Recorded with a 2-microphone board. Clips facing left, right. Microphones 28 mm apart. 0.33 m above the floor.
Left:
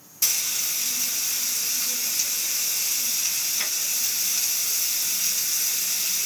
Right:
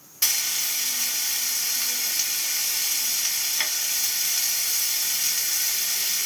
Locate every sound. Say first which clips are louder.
0.2 s frying: right 1 dB; 35° right (ahead or behind), 1.6 m